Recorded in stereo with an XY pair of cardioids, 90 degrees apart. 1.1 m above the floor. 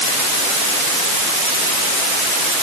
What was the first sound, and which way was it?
Only background noise.